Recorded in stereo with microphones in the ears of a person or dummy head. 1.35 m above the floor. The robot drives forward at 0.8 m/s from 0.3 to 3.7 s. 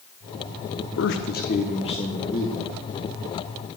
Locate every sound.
1.0 s a man speaking: 65° left (ahead or behind), 0.8 m; by 2.6 s 25° left (ahead or behind), 1.7 m